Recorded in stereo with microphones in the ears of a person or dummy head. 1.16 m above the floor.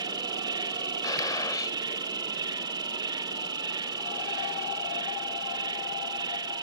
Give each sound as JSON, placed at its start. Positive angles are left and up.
{"t": 0.0, "sound": "an insect", "side_deg": -25}
{"t": 1.0, "sound": "a gunshot", "side_deg": 20}